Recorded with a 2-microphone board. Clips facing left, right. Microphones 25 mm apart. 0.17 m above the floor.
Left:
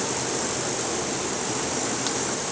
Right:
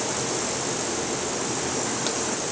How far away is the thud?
I don't hear a thud.